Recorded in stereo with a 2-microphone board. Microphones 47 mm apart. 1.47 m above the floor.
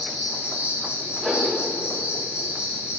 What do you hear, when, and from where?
0.0 s an insect: 20° right (ahead or behind), 4 m
1.2 s a whoosh: 15° right (ahead or behind), 1.4 m